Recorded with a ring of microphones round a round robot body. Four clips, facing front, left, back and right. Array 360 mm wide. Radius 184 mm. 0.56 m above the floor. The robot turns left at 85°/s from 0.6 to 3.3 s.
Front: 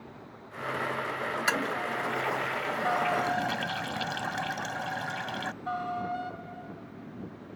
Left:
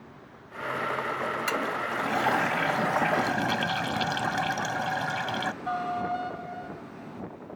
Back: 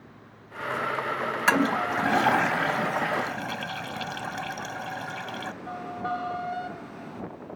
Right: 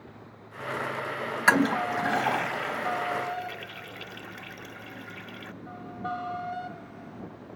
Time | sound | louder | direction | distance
1.5 | a toilet flushing | right 6 dB, back 9 dB | 120° right | ?